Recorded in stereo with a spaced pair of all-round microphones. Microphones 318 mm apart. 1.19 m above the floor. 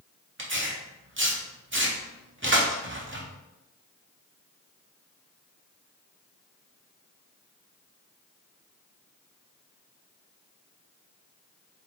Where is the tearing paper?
40° right (ahead or behind), 0.8 m.